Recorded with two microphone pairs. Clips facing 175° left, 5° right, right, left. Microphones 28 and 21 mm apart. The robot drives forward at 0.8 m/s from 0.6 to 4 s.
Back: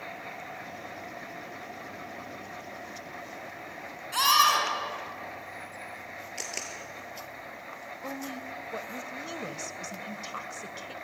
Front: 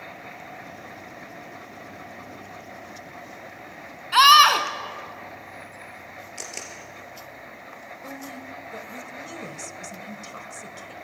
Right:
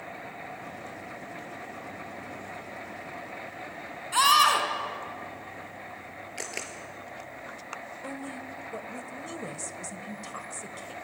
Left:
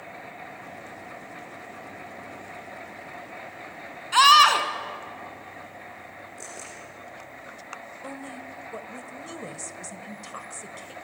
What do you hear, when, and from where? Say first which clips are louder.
4.1 s a scream: front 9 dB, left 5 dB; 30° left, 3.5 m
6.4 s a camera shutter: even, right 6 dB; 100° right, 4.5 m
8.0 s a woman speaking: back 1 dB, left 1 dB; 155° left, 1.2 m